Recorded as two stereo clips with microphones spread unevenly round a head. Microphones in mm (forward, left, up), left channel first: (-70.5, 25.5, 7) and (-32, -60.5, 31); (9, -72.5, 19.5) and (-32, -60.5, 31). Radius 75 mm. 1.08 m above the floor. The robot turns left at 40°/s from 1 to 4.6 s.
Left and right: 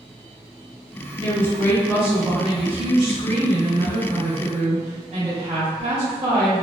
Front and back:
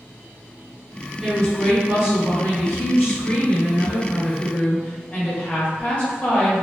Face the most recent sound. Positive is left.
turn(degrees=-65)